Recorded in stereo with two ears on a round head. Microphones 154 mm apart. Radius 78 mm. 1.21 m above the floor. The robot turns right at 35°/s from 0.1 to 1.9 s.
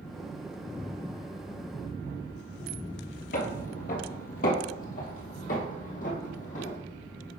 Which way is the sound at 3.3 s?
55° left (ahead or behind).